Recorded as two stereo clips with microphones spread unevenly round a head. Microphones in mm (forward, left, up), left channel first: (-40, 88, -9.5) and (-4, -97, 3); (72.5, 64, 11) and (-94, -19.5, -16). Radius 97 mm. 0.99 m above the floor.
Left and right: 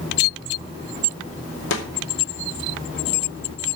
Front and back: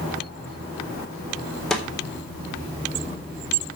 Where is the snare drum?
115° left, 3.5 m.